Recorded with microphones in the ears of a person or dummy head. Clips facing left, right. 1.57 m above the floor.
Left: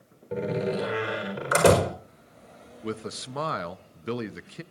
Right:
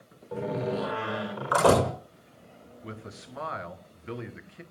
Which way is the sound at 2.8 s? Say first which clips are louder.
Left 9 dB; 65° left (ahead or behind).